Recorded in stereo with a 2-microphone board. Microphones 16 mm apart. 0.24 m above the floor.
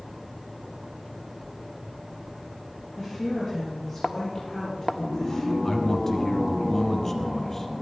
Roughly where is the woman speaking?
Centre.